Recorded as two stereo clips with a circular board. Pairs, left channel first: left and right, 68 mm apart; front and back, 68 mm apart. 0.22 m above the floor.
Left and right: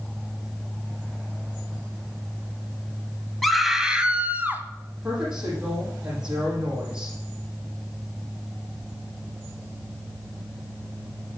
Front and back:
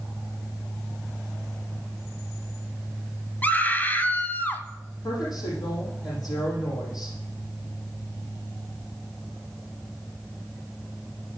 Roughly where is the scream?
Ahead.